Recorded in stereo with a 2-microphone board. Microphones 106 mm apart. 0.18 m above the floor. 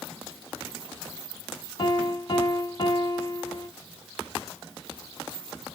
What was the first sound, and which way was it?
A piano, 45° left (ahead or behind).